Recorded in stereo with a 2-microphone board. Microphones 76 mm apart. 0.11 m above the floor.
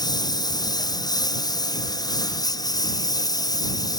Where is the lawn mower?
60° left (ahead or behind); by 4.0 s 55° left (ahead or behind).